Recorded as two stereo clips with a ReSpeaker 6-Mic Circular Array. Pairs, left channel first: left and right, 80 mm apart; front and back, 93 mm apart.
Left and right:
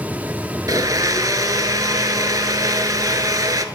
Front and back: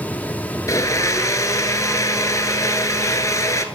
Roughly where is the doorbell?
I don't hear a doorbell.